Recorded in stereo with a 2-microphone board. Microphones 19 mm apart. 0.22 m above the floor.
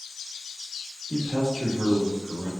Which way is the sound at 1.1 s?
35° left (ahead or behind).